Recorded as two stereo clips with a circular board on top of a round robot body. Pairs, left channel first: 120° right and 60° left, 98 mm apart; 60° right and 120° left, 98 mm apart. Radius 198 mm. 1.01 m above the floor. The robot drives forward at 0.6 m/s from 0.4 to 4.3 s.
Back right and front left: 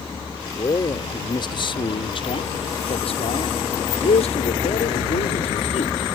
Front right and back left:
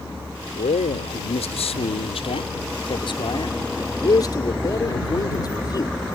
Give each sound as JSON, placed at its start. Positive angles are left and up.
{"t": 0.6, "sound": "a man speaking", "azimuth_deg": -65}